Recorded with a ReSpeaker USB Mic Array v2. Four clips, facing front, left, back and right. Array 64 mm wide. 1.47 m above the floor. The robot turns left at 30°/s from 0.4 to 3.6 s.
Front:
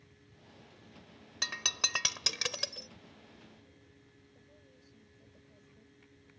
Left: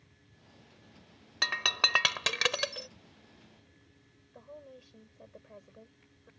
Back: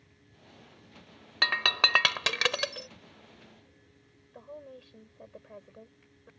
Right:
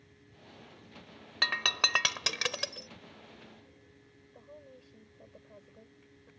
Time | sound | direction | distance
1.4 | breaking glass | 170° right | ?
4.3 | a woman speaking | 170° left | ?